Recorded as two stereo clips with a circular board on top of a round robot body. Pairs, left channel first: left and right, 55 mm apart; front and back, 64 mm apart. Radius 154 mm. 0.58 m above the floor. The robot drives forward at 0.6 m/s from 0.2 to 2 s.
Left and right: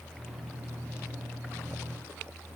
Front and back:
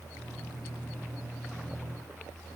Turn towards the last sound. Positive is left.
No sound to turn to.